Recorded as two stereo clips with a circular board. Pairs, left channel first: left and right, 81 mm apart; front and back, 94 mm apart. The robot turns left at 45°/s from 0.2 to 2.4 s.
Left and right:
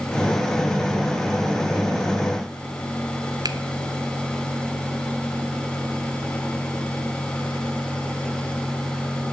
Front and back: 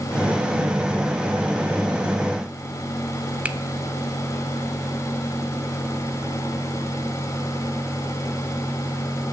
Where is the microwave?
No microwave in this recording.